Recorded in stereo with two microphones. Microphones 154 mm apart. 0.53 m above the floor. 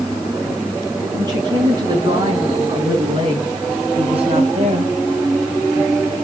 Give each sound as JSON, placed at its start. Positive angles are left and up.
{"t": 1.2, "sound": "a woman speaking", "side_deg": -25, "distance_m": 7.5}